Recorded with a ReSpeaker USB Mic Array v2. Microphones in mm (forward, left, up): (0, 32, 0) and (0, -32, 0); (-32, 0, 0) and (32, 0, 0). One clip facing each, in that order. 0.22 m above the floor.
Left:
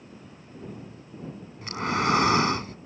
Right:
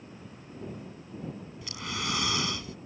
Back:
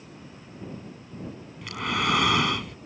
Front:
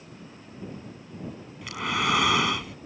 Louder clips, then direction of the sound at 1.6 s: Left 11 dB, even; 90° left.